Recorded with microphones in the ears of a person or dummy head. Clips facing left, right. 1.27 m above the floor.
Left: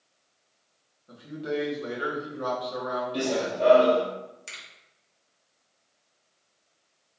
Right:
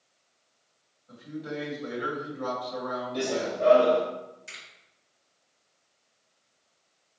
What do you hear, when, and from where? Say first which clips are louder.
1.1 s a man speaking: left 4 dB; 40° left (ahead or behind), 1.4 m
3.1 s running footsteps: left 1 dB; 50° left (ahead or behind), 1.9 m
4.5 s a finger snap: left 1 dB; 85° left, 1.8 m